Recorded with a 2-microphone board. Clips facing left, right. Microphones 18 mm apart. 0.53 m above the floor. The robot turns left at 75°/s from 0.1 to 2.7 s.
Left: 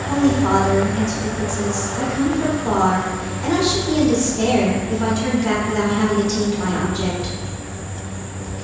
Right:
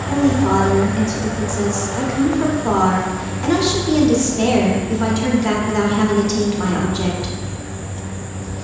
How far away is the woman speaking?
About 0.8 m.